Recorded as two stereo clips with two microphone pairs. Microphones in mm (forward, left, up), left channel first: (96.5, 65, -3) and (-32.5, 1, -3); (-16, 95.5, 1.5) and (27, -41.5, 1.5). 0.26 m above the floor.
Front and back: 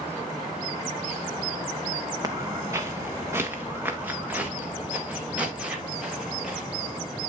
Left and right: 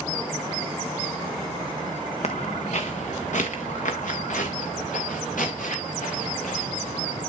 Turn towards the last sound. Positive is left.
turn(degrees=120)